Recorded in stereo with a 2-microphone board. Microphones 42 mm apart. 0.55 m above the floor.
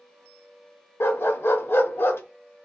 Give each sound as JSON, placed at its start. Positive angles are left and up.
{"t": 1.0, "sound": "a dog barking", "side_deg": 60, "distance_m": 0.5}